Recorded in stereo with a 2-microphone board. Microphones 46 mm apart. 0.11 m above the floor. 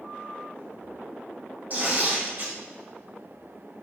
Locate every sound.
1.7 s tearing paper: 40° right (ahead or behind), 3 m